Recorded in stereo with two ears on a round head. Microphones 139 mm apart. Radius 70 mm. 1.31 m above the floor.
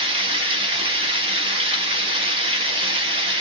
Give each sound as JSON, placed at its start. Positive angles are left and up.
{"t": 0.0, "sound": "running water", "side_deg": -35, "distance_m": 1.1}